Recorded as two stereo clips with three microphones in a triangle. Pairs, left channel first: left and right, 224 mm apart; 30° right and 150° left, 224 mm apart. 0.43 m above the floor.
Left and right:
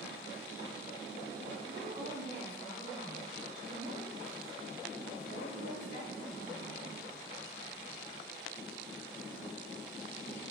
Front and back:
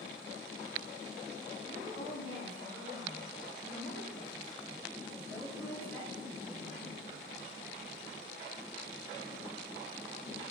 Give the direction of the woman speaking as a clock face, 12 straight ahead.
1 o'clock.